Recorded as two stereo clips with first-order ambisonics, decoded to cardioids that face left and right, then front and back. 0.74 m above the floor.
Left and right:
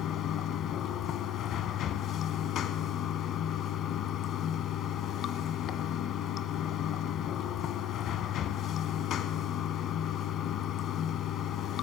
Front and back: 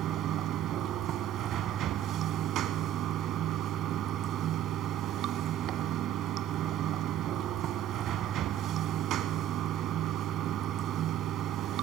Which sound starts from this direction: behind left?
Running water, at 0.0 s.